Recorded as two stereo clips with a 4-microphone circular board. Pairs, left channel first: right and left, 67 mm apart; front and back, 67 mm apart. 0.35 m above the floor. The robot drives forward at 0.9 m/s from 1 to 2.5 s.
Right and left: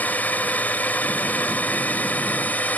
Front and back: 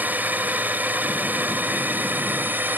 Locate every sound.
0.0 s a drone: 140° right